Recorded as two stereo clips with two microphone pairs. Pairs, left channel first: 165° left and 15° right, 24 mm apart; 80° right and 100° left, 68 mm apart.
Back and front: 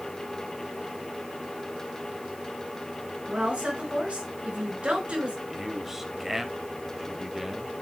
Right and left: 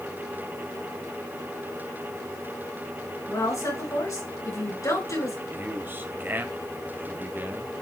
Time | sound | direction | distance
3.3 | a woman speaking | 45° right | 5 m
5.5 | a man speaking | 55° left | 1.5 m